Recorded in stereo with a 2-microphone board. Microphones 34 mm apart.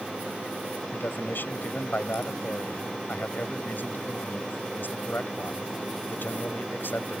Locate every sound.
0.9 s a man speaking: 70° left (ahead or behind)